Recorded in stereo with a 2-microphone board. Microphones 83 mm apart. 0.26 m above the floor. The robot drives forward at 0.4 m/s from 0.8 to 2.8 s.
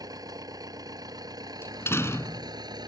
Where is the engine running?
50° right (ahead or behind); by 2.9 s 55° right (ahead or behind).